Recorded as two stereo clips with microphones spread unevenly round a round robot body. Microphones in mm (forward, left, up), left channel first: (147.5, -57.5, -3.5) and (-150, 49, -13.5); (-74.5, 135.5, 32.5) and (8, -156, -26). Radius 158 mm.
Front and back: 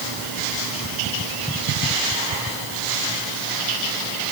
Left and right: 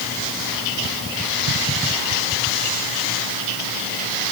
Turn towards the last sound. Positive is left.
No sound to turn to.